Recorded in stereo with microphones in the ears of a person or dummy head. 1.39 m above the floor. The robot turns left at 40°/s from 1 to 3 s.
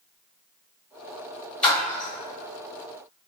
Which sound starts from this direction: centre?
A splash, at 1.6 s.